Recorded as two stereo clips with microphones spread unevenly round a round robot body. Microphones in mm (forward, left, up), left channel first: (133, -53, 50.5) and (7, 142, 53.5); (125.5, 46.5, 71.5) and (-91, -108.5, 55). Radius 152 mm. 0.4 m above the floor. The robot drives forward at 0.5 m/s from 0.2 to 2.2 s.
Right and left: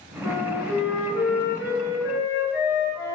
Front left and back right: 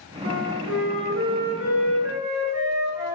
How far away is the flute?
About 3.5 m.